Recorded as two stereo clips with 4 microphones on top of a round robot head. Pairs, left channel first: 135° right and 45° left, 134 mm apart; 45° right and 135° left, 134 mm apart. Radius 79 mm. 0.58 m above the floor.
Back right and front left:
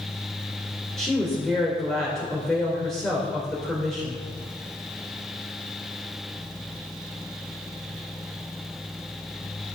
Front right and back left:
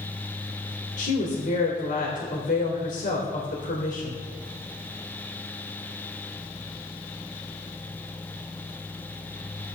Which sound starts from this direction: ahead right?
A woman speaking, at 1.0 s.